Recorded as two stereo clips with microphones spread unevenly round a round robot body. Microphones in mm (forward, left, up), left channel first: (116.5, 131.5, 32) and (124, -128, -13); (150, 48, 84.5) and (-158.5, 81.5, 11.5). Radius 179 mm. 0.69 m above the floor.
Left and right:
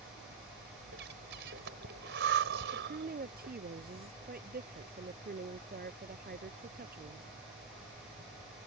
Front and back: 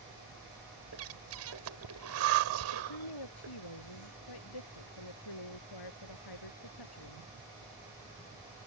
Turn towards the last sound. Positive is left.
turn(degrees=-35)